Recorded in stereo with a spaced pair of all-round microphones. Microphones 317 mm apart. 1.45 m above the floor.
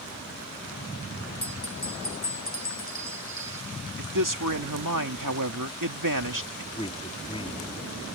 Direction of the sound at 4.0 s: 65° right (ahead or behind).